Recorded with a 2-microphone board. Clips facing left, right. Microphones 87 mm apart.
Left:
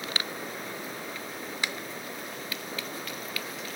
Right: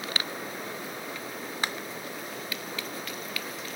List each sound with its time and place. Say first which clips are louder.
1.6 s a finger snap: right 2 dB; 40° right (ahead or behind)